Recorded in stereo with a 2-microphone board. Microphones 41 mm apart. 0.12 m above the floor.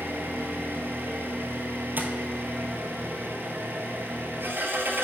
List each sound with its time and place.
0.0 s an engine running: 60° right (ahead or behind), 1.3 m
2.0 s tapping: 50° right (ahead or behind), 1.0 m